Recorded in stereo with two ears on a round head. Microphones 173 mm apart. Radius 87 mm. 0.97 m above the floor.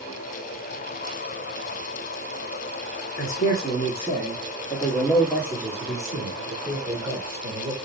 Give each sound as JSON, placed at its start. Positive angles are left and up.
{"t": 3.2, "sound": "a man speaking", "side_deg": 45, "distance_m": 1.3}